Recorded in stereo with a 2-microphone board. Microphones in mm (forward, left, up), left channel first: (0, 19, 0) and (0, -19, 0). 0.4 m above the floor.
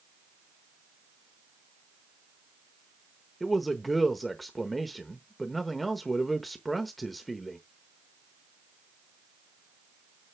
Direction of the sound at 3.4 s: Centre (ahead or behind).